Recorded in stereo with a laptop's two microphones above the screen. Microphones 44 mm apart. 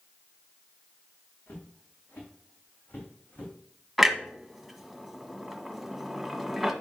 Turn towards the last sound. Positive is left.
turn(degrees=0)  # may be behind; listen again after turning